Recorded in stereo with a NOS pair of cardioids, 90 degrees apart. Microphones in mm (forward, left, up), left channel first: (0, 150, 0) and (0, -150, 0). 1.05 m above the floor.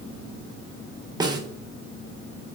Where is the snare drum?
15° right, 1.1 m.